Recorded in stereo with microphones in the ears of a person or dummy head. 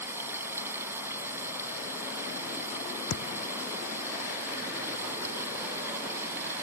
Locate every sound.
0.0 s running water: 15° right (ahead or behind)
3.1 s a thud: 65° left (ahead or behind)